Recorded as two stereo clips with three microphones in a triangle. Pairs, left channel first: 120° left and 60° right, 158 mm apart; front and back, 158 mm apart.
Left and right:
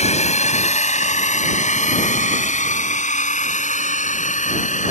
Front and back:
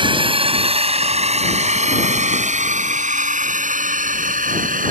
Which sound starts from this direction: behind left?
A drone, at 0.0 s.